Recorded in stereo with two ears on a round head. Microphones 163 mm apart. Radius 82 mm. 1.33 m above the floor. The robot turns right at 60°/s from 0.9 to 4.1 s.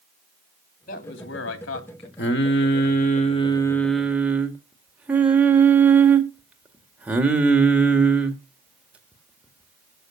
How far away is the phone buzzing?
I don't hear a phone buzzing.